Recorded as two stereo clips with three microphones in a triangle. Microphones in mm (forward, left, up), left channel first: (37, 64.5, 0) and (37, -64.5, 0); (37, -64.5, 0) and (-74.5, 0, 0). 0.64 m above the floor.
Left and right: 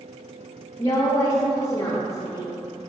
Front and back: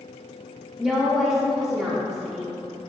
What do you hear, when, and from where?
0.8 s a woman speaking: 70° left, 0.6 m